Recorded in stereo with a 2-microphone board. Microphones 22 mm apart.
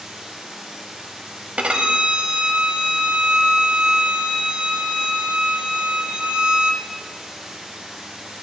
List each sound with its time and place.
0.0 s running water: 65° right (ahead or behind), 4.5 m
1.6 s a violin: 65° right (ahead or behind), 1.0 m